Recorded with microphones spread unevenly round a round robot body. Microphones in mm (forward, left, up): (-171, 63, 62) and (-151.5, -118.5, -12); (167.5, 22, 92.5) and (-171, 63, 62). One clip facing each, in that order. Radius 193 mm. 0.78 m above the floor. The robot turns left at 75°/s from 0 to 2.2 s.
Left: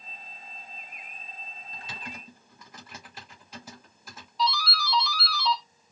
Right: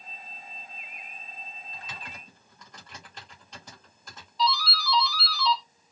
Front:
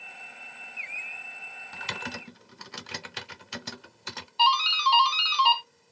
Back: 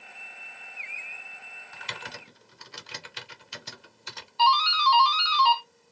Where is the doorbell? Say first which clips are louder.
Right 1 dB, back 2 dB; 35° left, 1.6 m.